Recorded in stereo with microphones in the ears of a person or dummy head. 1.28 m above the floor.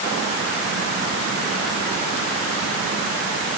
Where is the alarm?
No alarm in this recording.